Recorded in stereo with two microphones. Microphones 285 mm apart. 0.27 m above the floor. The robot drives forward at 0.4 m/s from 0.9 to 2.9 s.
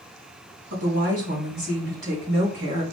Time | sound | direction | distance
0.7 | a woman speaking | 55° right (ahead or behind) | 2 m